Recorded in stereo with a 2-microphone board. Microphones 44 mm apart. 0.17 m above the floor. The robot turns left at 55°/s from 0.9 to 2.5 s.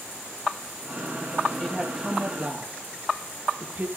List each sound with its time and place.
1.6 s a woman speaking: 15° left (ahead or behind), 5.5 m; by 3.9 s 35° right (ahead or behind), 5.5 m